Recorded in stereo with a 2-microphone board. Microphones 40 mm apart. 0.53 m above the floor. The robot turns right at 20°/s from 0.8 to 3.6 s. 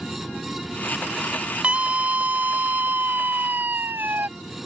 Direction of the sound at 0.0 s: 45° left.